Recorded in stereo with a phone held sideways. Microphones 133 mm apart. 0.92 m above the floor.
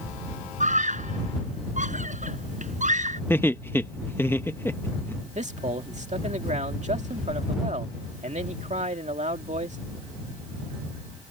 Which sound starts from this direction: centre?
Laughter, at 3.3 s.